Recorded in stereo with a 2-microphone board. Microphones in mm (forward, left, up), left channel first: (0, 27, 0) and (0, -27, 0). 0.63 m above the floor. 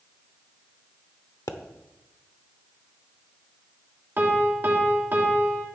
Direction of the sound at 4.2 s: 35° right (ahead or behind).